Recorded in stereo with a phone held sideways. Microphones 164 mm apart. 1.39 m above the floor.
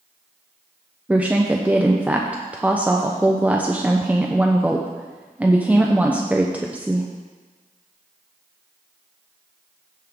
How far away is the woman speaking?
About 0.7 m.